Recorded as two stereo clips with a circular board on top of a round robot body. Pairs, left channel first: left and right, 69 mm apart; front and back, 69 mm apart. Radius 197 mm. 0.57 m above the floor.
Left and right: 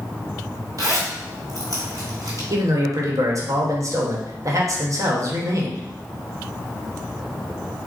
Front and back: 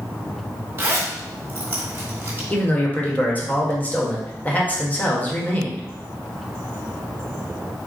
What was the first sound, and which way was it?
A zipper, 125° right.